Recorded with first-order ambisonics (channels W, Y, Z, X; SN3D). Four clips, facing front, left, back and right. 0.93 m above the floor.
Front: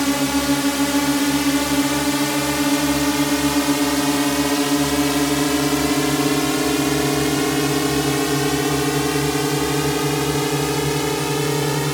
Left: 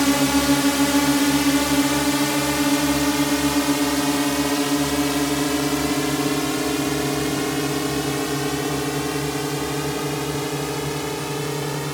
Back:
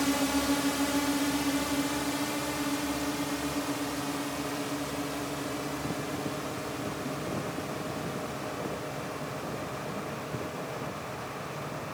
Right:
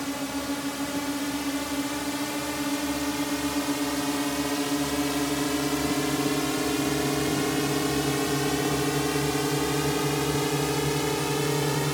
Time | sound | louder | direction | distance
0.0 | a drone | left 12 dB, front 9 dB | 55° left | ?